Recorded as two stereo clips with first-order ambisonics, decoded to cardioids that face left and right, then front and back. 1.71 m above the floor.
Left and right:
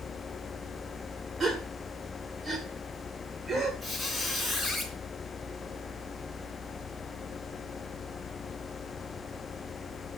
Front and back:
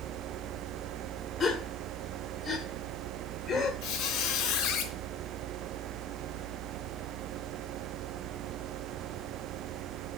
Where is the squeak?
10° right, 2.5 m.